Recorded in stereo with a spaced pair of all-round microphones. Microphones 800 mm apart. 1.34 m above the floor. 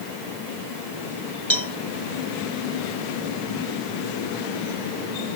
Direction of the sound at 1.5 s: 35° right (ahead or behind).